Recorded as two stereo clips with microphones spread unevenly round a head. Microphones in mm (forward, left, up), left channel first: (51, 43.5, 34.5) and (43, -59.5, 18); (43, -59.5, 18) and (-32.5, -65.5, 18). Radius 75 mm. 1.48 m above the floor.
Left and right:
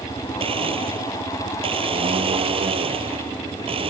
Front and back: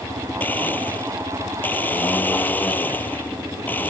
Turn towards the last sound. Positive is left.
turn(degrees=-60)